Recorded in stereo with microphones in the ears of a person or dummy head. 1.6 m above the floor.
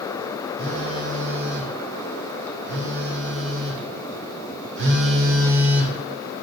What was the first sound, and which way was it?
A phone buzzing, 70° right (ahead or behind).